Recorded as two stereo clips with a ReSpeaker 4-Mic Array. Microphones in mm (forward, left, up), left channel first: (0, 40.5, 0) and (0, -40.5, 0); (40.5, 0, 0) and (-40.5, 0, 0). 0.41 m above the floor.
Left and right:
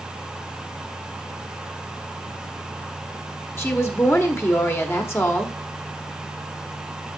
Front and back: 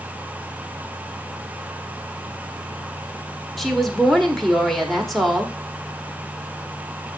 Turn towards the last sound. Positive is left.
turn(degrees=85)